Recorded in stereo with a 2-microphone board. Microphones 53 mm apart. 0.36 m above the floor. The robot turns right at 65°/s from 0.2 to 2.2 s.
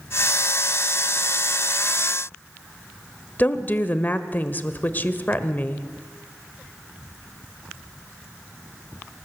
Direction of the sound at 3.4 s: 35° left (ahead or behind).